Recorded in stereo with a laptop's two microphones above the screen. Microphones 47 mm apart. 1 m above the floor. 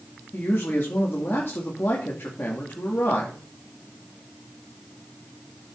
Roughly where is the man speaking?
Left.